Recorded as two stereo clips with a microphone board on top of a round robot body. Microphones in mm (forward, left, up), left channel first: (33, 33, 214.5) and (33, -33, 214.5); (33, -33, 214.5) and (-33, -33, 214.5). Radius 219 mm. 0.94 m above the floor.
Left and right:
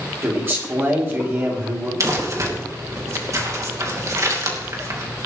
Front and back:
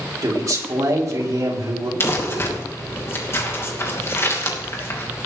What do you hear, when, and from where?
0.2 s a man speaking: 145° right, 3.5 m
2.0 s crumpling: 50° right, 2.5 m